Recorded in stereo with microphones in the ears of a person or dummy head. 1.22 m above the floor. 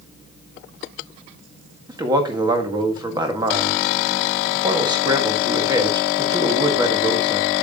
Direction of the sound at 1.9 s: 25° right (ahead or behind).